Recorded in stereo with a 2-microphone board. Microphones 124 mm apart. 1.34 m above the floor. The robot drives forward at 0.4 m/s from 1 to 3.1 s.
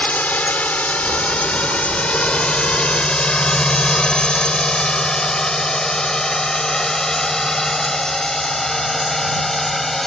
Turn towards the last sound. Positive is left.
turn(degrees=0)  # may be behind; listen again after turning